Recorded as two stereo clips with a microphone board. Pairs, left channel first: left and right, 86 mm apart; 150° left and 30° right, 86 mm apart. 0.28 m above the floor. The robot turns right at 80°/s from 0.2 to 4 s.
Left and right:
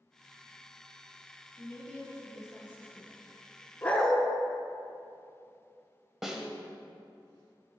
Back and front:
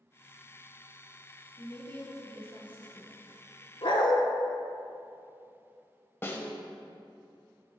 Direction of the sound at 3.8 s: 160° left.